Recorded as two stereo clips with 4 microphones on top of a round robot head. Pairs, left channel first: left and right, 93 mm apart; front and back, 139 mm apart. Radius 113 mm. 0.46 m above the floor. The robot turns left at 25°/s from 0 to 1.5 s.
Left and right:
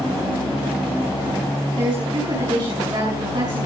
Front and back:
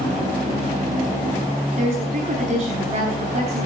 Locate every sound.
1.8 s a woman speaking: 135° right, 5.5 m